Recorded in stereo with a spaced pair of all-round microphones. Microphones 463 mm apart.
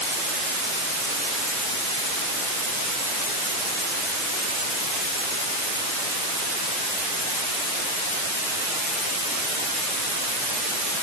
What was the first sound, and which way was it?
Only background noise.